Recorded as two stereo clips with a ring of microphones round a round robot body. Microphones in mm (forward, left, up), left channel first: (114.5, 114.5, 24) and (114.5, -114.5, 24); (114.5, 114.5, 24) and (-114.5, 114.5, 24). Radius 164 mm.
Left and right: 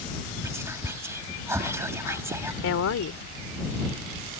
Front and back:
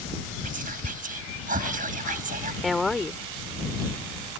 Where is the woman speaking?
90° left.